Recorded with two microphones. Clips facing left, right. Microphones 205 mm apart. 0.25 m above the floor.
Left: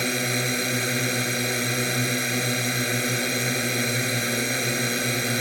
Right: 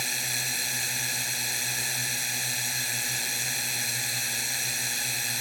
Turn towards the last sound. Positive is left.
turn(degrees=70)  # may be behind; listen again after turning